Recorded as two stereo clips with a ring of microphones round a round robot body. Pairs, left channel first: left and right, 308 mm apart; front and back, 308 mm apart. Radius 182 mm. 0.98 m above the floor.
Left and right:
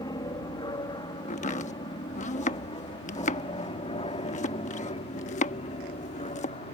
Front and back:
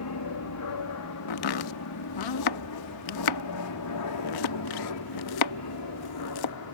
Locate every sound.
0.0 s an aircraft: 15° left; by 6.8 s 20° left
1.3 s chopping: 20° left